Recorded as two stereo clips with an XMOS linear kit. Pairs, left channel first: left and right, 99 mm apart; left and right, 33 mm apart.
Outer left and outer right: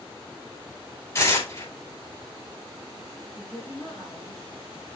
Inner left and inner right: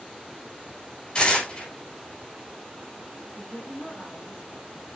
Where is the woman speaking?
5° left (ahead or behind), 3 m.